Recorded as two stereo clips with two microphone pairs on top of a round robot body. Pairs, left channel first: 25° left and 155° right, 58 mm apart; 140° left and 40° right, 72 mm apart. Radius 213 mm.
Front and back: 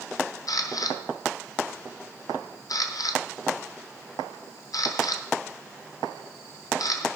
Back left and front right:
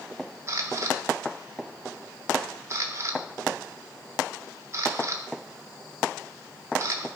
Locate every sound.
0.5 s a camera shutter: 15° left, 0.8 m